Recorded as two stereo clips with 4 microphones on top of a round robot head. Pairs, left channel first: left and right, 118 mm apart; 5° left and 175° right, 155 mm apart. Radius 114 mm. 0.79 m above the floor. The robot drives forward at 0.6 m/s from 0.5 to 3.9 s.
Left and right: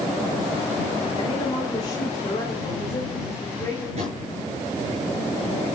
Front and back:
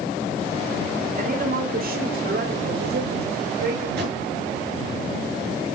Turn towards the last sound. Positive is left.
turn(degrees=-140)